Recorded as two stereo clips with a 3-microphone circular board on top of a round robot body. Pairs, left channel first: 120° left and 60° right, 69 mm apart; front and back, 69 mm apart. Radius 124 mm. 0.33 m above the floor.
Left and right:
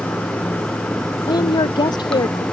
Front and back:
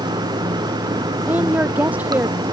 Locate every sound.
0.0 s running water: 160° right
1.3 s a woman speaking: 110° left